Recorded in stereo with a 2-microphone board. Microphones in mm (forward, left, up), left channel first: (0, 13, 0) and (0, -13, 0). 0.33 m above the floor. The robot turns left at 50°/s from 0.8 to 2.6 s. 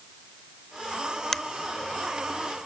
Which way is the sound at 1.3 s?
10° left (ahead or behind).